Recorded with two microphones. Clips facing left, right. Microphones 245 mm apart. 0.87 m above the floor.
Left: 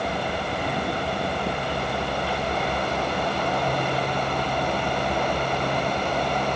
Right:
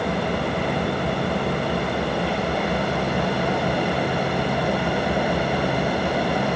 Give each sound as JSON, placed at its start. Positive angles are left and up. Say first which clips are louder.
{"t": 0.0, "sound": "an engine running", "louder": "right 5 dB", "side_deg": -65}